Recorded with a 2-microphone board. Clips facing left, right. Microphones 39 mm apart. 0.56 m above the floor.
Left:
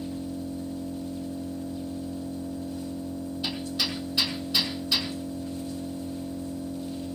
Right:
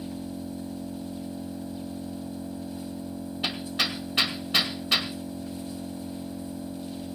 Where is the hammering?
60° right (ahead or behind), 2.5 m.